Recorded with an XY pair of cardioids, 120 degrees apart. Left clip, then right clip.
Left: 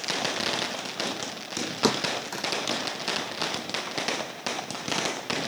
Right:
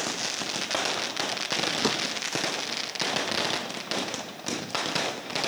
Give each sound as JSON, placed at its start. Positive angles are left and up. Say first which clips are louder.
{"t": 1.8, "sound": "a thud", "louder": "left 1 dB", "azimuth_deg": 25}